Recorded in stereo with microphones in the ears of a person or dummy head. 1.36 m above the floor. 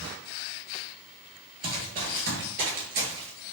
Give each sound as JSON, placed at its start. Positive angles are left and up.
{"t": 1.6, "sound": "running footsteps", "side_deg": -25, "distance_m": 1.7}